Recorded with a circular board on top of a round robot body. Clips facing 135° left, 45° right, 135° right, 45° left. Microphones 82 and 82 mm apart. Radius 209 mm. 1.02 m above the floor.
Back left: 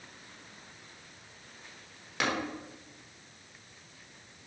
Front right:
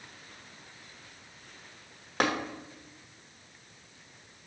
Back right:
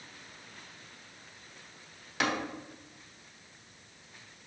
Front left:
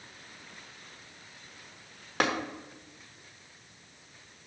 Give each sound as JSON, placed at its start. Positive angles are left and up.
{"t": 2.2, "sound": "tapping", "azimuth_deg": 5, "distance_m": 1.0}